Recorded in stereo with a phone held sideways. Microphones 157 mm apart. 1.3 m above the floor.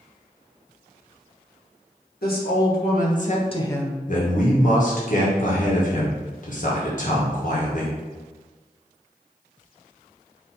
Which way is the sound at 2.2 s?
75° left (ahead or behind).